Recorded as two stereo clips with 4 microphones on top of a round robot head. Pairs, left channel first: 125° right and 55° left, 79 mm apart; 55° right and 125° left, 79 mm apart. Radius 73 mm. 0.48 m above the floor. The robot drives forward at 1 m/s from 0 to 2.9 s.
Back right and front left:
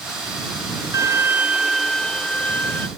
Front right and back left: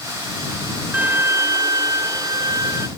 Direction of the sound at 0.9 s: 65° left.